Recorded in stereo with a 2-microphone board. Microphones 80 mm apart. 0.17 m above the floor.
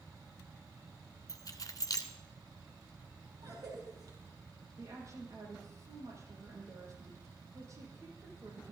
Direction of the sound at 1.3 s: 50° left (ahead or behind).